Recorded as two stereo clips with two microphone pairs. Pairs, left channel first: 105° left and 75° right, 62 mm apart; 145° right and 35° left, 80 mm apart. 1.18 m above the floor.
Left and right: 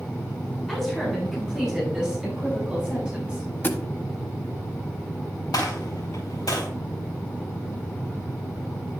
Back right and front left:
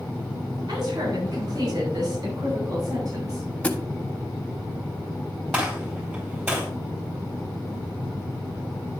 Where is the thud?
150° left, 0.8 m.